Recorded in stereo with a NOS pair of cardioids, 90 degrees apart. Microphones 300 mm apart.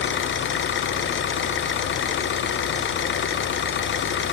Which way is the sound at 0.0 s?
40° left.